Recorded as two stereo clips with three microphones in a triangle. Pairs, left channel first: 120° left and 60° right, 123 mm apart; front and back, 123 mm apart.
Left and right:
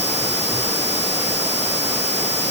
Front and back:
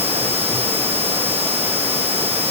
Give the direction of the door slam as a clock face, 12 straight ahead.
No door slam in this recording.